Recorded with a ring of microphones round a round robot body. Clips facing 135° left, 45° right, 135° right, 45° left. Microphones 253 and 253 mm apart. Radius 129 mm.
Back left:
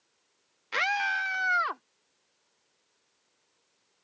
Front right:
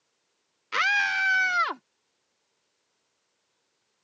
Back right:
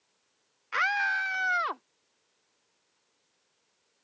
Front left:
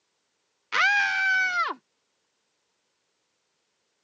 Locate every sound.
0.7 s a scream: 25° left; by 1.8 s 10° right